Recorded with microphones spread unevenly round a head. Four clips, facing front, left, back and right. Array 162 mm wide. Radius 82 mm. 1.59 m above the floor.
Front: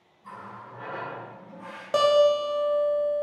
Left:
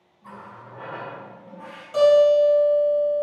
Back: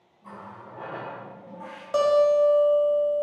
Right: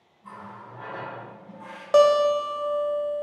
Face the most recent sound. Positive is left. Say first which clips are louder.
# left 3 dB, back 1 dB
turn(degrees=-65)